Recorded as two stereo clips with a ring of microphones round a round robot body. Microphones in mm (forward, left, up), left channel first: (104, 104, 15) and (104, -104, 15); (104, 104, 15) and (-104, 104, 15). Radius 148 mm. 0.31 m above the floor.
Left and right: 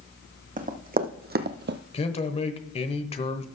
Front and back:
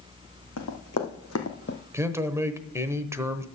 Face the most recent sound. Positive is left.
turn(degrees=115)